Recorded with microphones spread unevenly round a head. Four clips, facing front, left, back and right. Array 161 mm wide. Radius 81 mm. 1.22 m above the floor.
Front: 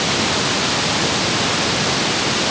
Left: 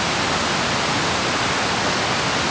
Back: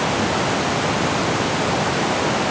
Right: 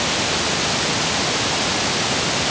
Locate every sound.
Only background noise.